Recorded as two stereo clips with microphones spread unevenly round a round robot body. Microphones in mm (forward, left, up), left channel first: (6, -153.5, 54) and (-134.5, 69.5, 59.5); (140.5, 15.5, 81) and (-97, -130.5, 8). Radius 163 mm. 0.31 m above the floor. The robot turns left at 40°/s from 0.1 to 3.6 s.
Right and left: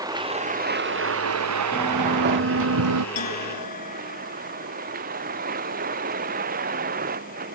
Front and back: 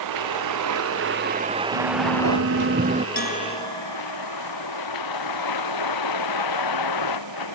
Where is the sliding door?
165° right; by 3.0 s 140° left.